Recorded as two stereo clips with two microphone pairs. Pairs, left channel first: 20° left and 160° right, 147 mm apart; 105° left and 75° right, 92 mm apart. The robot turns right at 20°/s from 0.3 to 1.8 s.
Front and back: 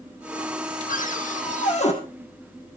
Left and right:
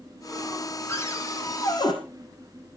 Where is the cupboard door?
40° left, 4 m; by 1.9 s 60° left, 4 m.